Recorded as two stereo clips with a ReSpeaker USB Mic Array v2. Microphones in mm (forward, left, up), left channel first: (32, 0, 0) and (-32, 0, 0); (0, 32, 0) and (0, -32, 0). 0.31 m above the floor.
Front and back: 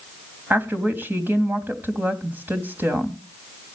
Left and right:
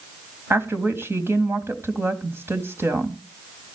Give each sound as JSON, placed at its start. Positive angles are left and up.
{"t": 0.5, "sound": "a woman speaking", "azimuth_deg": -130, "distance_m": 2.5}